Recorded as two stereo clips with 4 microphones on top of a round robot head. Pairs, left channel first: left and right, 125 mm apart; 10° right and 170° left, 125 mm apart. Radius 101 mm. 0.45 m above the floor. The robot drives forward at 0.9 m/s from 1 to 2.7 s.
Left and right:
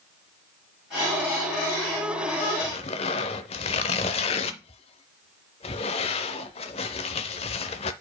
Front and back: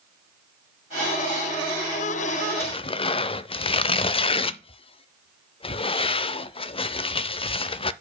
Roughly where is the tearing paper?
Ahead left.